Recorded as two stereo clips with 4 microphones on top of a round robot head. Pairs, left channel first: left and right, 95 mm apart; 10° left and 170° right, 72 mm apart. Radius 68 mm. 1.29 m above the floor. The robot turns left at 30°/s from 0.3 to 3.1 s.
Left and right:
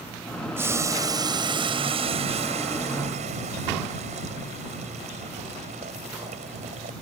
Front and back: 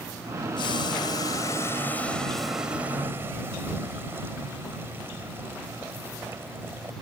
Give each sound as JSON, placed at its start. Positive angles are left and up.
{"t": 0.6, "sound": "boiling", "azimuth_deg": -25}